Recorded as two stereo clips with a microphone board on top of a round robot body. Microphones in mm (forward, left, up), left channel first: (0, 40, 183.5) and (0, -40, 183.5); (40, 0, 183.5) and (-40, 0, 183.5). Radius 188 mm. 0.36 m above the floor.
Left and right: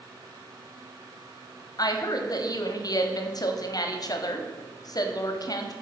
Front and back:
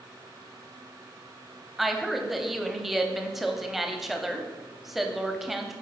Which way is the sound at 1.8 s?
95° left.